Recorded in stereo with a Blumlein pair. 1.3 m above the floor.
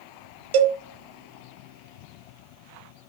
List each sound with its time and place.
0.5 s a cowbell: 55° right, 0.7 m